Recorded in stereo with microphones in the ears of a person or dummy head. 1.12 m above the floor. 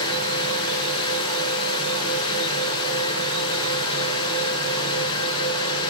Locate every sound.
0.0 s a fan: 25° left (ahead or behind), 6 m